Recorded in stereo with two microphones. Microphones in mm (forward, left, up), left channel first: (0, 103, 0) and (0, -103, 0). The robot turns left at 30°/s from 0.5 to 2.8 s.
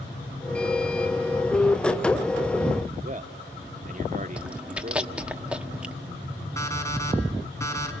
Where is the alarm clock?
15° left (ahead or behind), 2.5 m.